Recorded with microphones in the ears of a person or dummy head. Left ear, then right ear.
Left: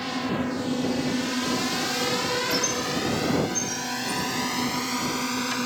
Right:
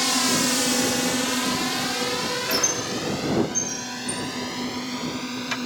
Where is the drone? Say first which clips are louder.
Right 7 dB; 80° right; by 5.7 s 30° left (ahead or behind).